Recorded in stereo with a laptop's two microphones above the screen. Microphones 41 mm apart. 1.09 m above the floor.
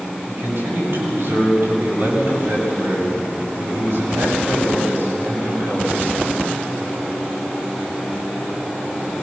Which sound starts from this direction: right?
A man speaking, at 0.3 s.